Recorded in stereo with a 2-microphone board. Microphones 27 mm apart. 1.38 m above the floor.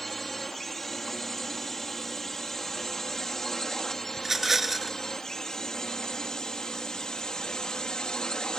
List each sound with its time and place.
0.0 s a drone: 10° left (ahead or behind); by 8.6 s 30° left (ahead or behind)
4.2 s a rattle: 10° right (ahead or behind)